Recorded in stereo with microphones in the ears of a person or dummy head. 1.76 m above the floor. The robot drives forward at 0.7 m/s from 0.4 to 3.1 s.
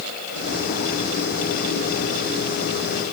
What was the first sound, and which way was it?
Only background noise.